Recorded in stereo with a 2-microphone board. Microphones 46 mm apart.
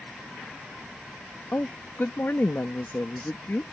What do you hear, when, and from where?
1.5 s a woman speaking: 55° left (ahead or behind)